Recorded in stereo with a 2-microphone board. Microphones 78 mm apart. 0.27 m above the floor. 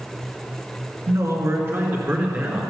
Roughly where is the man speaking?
Right.